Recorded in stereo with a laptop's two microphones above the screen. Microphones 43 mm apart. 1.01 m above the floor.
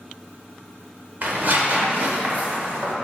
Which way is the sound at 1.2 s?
45° right (ahead or behind).